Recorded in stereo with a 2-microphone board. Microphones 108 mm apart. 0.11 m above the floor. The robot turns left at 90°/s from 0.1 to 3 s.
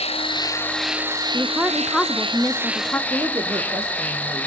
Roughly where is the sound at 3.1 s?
Right.